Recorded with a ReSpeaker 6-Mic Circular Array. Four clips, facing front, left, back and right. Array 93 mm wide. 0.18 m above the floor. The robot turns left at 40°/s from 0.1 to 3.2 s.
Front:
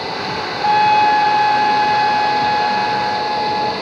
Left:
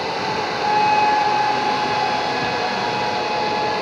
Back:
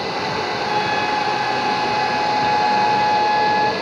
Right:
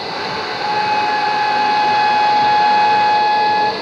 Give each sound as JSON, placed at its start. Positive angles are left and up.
{"t": 0.6, "sound": "a trumpet", "azimuth_deg": 0, "distance_m": 0.8}